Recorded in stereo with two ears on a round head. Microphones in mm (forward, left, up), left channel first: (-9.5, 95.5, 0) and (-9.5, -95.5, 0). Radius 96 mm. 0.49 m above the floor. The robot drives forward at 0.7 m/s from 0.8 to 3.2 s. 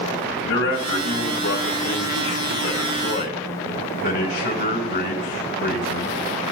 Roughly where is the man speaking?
Left.